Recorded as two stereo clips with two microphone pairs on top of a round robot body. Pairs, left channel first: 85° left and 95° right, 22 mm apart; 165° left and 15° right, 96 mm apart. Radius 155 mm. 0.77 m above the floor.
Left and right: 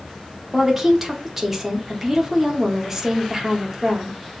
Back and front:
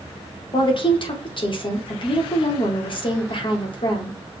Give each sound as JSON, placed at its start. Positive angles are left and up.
{"t": 0.5, "sound": "a woman speaking", "azimuth_deg": -165, "distance_m": 1.2}